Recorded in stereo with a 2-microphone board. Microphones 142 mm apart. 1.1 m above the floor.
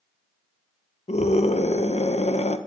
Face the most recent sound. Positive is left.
turn(degrees=50)  # may be behind; listen again after turning